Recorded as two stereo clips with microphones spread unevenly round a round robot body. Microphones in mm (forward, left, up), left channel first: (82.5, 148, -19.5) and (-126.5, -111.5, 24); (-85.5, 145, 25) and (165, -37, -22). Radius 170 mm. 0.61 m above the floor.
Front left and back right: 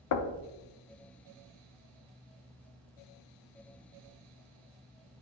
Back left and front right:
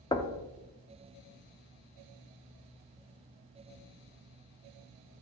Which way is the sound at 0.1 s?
65° left.